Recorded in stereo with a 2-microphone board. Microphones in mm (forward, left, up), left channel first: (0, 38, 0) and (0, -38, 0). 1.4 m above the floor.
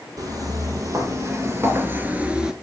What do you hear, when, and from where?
0.2 s footsteps: 50° right (ahead or behind), 2.5 m; by 2.5 s 10° right (ahead or behind), 1.3 m